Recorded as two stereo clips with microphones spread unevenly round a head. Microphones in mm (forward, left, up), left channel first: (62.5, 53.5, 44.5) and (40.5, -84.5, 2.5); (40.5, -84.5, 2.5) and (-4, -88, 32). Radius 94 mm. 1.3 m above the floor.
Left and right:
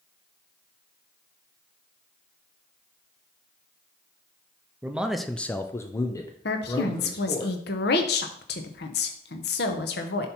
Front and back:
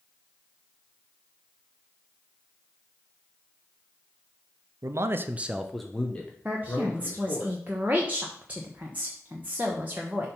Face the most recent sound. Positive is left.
turn(degrees=100)